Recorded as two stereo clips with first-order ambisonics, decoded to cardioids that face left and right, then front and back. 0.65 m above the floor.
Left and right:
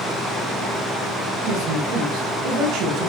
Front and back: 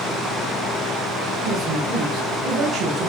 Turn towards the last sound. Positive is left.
turn(degrees=-115)